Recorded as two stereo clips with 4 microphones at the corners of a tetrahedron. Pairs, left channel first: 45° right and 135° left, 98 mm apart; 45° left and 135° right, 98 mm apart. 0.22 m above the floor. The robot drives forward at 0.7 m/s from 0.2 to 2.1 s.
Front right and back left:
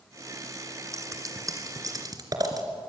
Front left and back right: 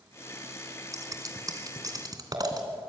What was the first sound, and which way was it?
Scissors, straight behind.